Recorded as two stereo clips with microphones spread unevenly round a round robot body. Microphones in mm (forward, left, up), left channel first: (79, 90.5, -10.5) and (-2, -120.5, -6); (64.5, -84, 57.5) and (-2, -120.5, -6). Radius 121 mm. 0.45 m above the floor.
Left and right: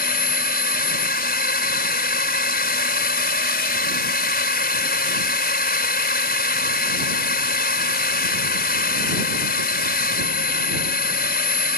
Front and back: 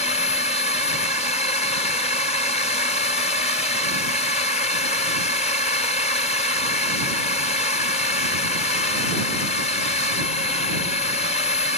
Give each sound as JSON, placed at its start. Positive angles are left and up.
{"t": 0.0, "sound": "a drone", "azimuth_deg": 45}